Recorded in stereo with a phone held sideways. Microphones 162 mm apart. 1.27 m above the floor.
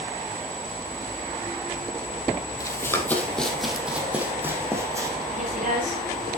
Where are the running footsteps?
20° left (ahead or behind), 2 m; by 5.2 s 20° right (ahead or behind), 3.5 m.